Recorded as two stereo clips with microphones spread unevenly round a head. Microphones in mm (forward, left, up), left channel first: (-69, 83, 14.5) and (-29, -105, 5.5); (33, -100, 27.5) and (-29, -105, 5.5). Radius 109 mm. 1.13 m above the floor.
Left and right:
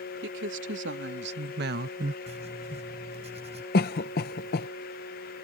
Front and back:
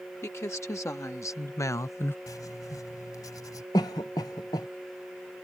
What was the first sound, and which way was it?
A woman speaking, 40° right.